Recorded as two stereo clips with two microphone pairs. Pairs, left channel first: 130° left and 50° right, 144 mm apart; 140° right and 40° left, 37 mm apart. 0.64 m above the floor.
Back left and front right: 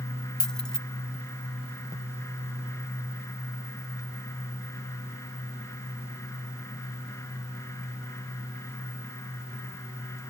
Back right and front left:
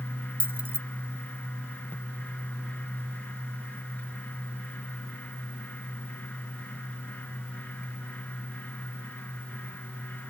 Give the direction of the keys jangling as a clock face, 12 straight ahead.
11 o'clock.